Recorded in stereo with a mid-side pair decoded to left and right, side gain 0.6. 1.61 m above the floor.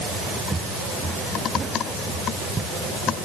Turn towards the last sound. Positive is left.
turn(degrees=-25)